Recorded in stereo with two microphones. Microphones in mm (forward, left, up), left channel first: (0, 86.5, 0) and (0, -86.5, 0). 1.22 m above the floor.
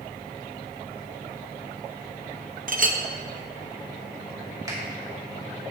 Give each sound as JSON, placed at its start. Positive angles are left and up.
{"t": 2.7, "sound": "a clink", "side_deg": -55, "distance_m": 0.6}
{"t": 4.7, "sound": "a finger snap", "side_deg": -20, "distance_m": 2.5}